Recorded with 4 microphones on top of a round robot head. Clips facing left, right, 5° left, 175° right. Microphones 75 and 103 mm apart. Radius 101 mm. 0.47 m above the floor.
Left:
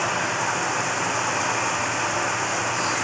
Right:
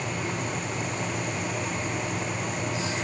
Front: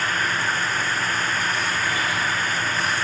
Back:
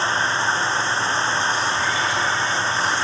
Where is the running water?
120° left.